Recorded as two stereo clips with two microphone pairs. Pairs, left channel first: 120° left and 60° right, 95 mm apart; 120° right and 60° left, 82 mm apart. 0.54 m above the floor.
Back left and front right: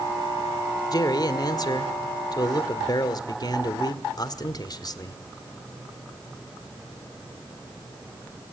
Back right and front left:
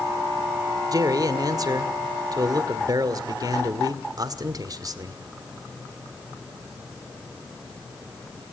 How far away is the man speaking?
About 1.6 m.